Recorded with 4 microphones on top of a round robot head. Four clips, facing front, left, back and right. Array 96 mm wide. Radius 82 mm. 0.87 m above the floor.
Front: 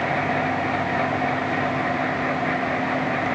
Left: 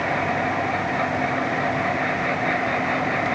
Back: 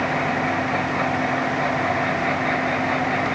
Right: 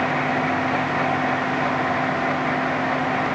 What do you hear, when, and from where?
Only background noise.